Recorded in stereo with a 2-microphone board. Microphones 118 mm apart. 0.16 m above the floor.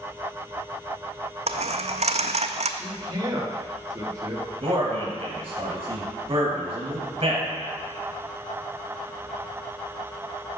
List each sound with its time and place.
1.5 s a dropped coin: 70° right (ahead or behind), 0.5 m
2.8 s a man speaking: 35° right (ahead or behind), 2 m
4.6 s a man speaking: 50° right (ahead or behind), 3 m